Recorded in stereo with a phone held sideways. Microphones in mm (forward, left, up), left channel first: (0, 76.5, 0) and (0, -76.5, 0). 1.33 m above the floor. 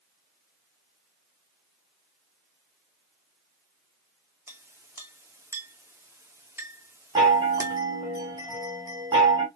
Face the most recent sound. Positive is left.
turn(degrees=-25)  # may be behind; listen again after turning